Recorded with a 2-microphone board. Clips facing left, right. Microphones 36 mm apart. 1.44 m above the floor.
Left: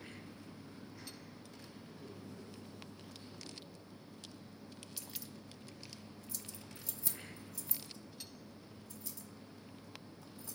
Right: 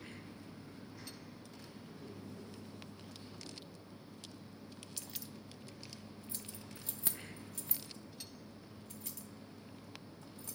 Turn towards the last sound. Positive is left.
turn(degrees=-70)  # may be behind; listen again after turning